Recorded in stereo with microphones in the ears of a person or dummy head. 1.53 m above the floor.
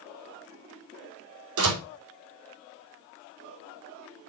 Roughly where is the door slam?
Right.